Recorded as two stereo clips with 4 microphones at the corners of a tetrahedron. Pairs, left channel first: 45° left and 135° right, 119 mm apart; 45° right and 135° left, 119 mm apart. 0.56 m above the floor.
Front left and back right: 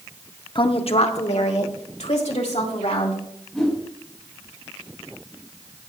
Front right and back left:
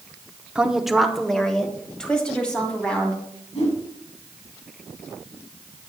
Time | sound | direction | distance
0.6 | a woman speaking | 60° left | 0.8 m
3.5 | a whoosh | 45° right | 4.5 m